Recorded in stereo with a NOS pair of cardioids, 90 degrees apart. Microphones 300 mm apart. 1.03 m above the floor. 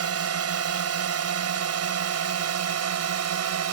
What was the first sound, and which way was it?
A drone, 55° right.